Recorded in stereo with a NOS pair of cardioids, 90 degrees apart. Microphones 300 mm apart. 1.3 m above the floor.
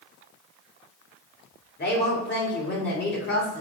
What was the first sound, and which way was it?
A woman speaking, 35° left.